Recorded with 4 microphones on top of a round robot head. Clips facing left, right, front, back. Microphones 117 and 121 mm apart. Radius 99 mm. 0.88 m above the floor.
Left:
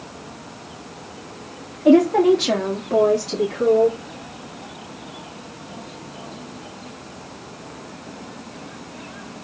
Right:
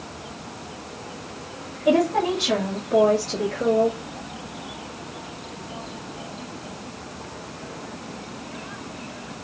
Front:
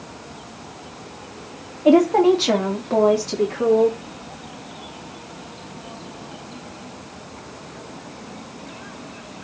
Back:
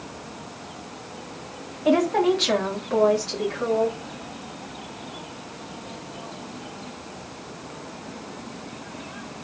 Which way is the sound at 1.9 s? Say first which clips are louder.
Left 7 dB, front 6 dB; 55° left.